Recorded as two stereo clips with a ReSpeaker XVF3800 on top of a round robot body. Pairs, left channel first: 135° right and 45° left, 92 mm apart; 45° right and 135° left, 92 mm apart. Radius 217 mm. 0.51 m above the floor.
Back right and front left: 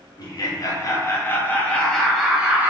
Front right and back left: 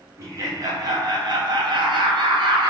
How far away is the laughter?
About 1.4 m.